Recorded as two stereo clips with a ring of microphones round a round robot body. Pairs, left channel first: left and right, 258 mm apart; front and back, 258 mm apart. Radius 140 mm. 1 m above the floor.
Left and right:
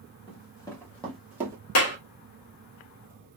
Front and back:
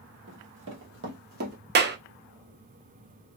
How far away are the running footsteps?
About 1.6 m.